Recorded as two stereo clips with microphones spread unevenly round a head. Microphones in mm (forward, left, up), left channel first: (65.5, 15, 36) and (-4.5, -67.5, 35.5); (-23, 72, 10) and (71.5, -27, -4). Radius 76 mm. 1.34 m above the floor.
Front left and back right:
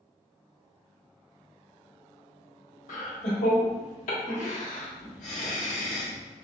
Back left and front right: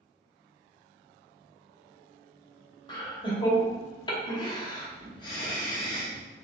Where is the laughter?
75° left, 1.5 m.